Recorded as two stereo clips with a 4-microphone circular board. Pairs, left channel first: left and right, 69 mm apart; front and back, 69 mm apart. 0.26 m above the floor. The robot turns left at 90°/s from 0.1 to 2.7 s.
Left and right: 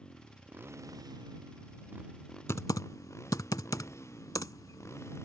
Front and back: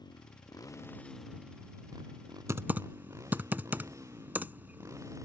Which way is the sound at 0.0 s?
15° left.